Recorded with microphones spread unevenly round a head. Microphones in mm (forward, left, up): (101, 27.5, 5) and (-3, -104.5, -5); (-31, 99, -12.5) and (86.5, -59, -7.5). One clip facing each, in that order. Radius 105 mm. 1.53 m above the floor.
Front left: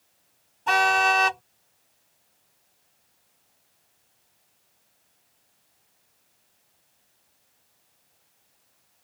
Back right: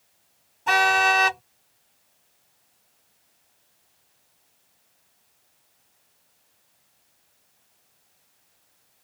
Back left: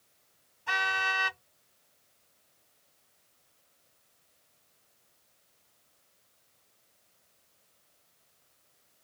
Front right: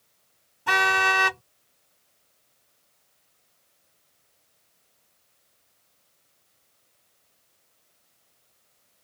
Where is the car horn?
40° right.